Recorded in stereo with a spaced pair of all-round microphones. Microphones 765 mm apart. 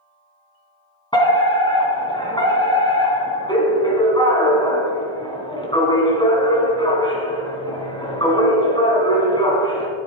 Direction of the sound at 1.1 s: 5° left (ahead or behind).